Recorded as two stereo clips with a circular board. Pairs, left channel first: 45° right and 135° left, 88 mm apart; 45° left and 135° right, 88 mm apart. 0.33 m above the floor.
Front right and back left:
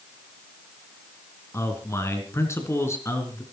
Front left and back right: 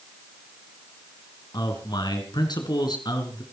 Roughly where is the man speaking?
Ahead.